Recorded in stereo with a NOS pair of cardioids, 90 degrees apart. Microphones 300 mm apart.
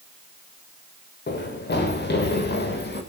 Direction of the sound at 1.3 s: 35° left.